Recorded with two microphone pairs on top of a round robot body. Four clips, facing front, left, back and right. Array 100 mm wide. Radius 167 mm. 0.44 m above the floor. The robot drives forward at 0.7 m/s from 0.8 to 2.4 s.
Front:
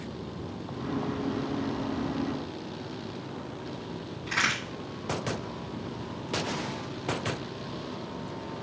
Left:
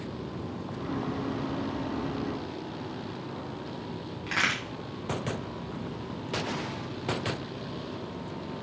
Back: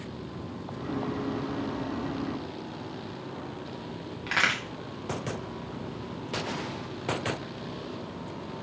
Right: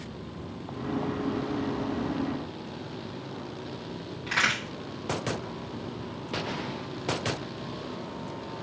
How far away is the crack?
About 1.6 m.